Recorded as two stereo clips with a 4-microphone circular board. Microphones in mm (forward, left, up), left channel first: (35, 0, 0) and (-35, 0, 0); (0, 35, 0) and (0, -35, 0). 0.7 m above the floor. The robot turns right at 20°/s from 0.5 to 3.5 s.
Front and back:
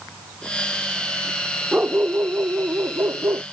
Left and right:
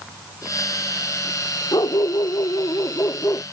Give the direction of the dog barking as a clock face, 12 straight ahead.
8 o'clock.